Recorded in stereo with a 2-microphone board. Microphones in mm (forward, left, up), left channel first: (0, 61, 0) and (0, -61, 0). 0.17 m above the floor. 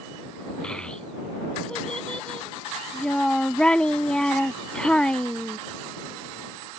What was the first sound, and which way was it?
A child speaking, 5° left (ahead or behind).